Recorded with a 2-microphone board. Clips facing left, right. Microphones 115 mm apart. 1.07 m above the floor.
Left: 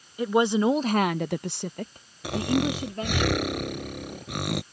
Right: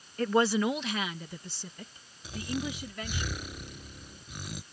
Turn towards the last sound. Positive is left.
turn(degrees=75)  # may be behind; listen again after turning